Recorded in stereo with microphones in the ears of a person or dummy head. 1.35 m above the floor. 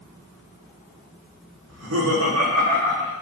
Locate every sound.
1.7 s laughter: 80° right, 1.0 m; by 3.1 s 50° right (ahead or behind), 1.2 m